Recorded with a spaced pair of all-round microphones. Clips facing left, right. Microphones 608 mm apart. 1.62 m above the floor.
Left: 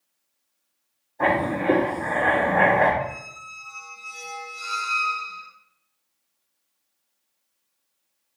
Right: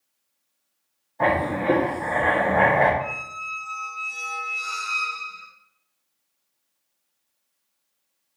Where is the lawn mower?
No lawn mower in this recording.